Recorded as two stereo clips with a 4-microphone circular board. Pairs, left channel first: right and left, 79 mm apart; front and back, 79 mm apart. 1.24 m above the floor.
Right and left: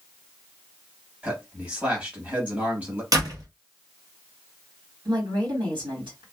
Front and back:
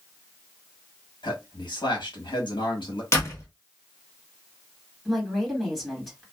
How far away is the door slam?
About 1.0 m.